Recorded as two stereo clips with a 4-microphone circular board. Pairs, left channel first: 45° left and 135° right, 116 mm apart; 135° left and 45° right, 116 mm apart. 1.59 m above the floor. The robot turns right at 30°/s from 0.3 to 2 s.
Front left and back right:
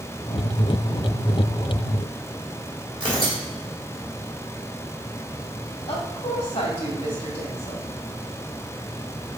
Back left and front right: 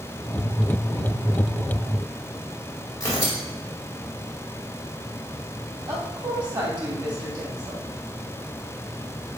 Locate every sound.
3.0 s tearing paper: 170° right, 2.5 m
5.9 s a woman speaking: 5° left, 2.5 m